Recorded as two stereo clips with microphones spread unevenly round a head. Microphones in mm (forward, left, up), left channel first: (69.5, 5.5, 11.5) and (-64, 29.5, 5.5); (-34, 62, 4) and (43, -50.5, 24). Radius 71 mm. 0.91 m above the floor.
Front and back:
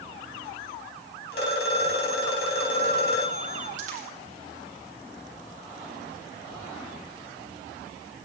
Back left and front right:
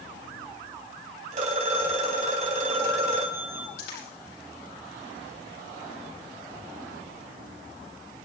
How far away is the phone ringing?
About 4 m.